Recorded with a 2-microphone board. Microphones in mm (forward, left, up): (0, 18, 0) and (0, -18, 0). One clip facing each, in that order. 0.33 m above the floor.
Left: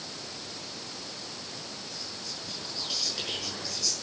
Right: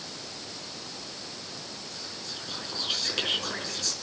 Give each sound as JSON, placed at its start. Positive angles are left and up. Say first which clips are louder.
{"t": 1.9, "sound": "whispering", "louder": "right 1 dB", "side_deg": -50, "distance_m": 5.5}